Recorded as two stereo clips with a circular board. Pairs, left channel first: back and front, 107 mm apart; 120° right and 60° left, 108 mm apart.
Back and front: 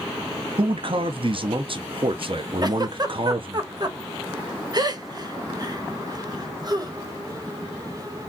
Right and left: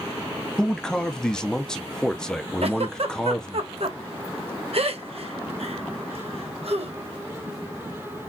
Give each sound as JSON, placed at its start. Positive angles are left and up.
{"t": 0.6, "sound": "a man speaking", "azimuth_deg": -35, "distance_m": 0.7}
{"t": 2.6, "sound": "a giggle", "azimuth_deg": 50, "distance_m": 1.0}